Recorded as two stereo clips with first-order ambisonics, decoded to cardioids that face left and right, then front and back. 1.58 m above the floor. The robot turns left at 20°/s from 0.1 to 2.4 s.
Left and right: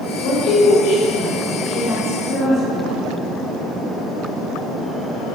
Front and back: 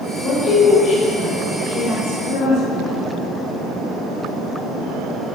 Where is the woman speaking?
70° left, 2 m; by 2.9 s 25° left, 2 m.